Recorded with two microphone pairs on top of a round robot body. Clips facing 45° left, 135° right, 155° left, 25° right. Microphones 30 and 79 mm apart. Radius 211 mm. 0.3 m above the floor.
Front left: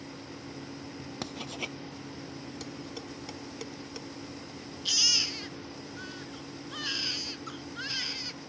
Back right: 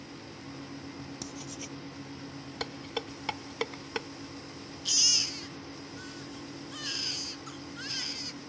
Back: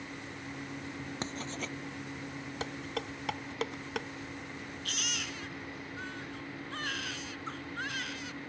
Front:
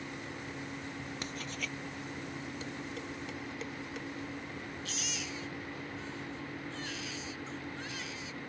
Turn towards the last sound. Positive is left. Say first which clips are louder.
# front left 2 dB, back 1 dB
turn(degrees=120)